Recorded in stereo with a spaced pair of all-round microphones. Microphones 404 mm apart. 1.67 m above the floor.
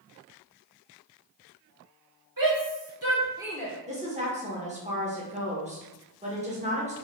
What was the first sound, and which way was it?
A shout, 55° right (ahead or behind).